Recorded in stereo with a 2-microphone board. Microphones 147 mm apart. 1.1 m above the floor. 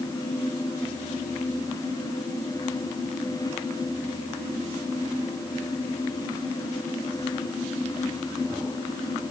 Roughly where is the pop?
No pop in this recording.